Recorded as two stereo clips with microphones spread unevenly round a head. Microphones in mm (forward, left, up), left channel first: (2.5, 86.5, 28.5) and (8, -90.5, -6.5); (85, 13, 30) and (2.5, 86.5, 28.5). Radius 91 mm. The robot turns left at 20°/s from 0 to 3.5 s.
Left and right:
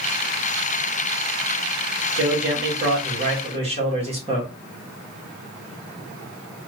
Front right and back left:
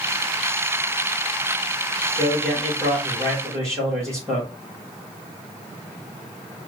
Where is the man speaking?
120° right, 2.5 m; by 4.5 s 145° right, 2.5 m.